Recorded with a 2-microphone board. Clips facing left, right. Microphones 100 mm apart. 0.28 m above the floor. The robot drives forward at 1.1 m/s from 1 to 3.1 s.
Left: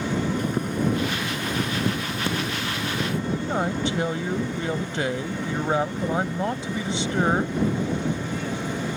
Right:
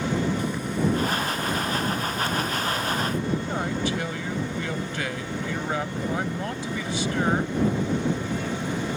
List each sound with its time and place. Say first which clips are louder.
0.4 s boiling: left 1 dB; 50° left (ahead or behind); by 3.2 s 65° left (ahead or behind)
3.3 s a man speaking: left 2 dB; 25° left (ahead or behind)